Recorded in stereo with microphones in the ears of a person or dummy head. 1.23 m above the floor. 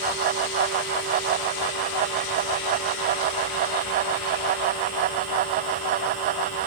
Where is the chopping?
No chopping in this recording.